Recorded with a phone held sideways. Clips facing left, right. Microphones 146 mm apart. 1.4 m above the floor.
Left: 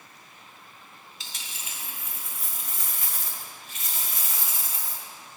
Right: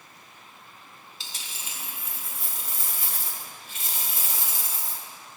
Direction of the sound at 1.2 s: 30° right (ahead or behind).